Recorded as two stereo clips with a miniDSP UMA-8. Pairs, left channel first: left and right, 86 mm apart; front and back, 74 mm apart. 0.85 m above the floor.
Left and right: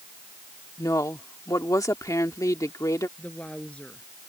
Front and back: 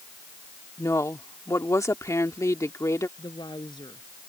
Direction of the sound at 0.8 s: 45° left.